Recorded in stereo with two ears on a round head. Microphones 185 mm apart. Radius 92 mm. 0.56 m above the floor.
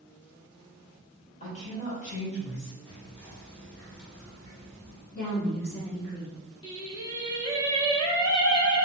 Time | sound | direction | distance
1.4 | a woman speaking | 35° left (ahead or behind) | 1.4 m
2.9 | whispering | 10° left (ahead or behind) | 1.2 m
5.1 | a woman speaking | 50° left (ahead or behind) | 1.3 m
6.6 | singing | 20° left (ahead or behind) | 0.6 m